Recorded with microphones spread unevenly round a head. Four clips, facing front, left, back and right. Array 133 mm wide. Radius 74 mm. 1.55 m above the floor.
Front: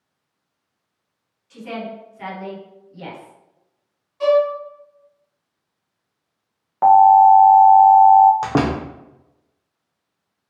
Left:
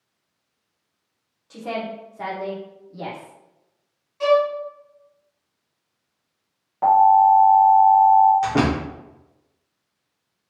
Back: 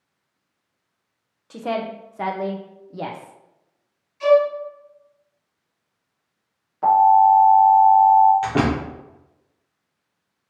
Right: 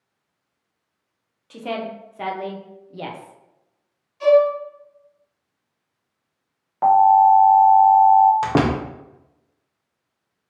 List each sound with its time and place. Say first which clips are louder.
1.5 s a woman speaking: right 1 dB, back 5 dB; 165° right, 0.6 m
4.2 s a violin: right 3 dB, even; 25° left, 1.9 m
6.8 s an alarm: right 1 dB, front 4 dB; 15° right, 1.3 m
8.4 s a door slam: right 1 dB, front 1 dB; 50° right, 0.7 m